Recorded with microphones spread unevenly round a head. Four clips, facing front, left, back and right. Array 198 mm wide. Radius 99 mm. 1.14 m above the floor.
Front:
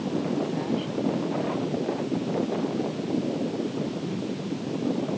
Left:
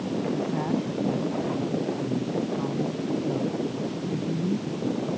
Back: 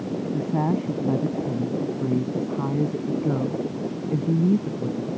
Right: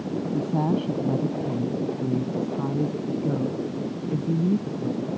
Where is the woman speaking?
140° right; by 5.1 s 160° right.